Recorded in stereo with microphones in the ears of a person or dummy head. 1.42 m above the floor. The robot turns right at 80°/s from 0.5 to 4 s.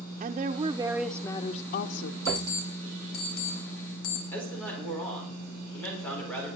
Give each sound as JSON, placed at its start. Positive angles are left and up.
{"t": 0.2, "sound": "a woman speaking", "azimuth_deg": -45, "distance_m": 0.6}
{"t": 2.2, "sound": "an alarm clock", "side_deg": -35, "distance_m": 5.0}
{"t": 4.3, "sound": "a man speaking", "side_deg": 10, "distance_m": 5.0}